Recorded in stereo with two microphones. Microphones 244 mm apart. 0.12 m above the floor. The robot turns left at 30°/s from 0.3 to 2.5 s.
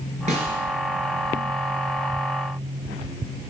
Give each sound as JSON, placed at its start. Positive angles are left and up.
{"t": 0.3, "sound": "a snare drum", "side_deg": -30, "distance_m": 1.4}